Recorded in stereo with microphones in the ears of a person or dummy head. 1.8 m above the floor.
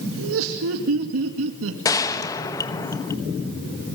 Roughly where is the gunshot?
Left.